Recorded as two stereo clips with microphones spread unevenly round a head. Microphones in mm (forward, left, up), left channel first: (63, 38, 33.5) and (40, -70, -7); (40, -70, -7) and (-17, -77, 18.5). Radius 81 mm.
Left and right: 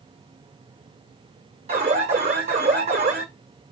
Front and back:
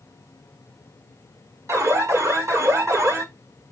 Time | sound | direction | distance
1.7 | an alarm | 140° right | 5.5 m